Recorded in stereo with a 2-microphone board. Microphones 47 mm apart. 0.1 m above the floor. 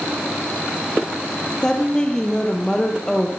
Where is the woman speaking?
15° left (ahead or behind), 2.5 m.